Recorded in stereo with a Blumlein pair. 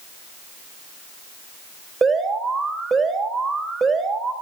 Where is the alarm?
15° right, 3.5 m.